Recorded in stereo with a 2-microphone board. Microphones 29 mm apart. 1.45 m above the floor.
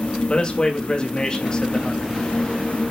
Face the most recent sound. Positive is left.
turn(degrees=30)  # may be behind; listen again after turning